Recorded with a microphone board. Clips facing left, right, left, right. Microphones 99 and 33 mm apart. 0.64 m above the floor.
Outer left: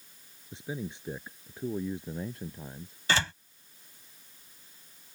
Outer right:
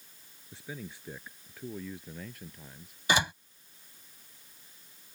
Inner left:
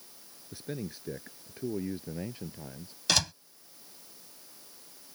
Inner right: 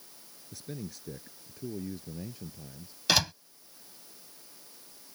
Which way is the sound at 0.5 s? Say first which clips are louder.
Outer left 6 dB, inner left 3 dB; 20° left (ahead or behind).